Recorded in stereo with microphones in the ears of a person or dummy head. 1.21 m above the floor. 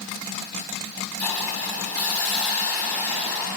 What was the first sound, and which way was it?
A hiss, 10° left (ahead or behind).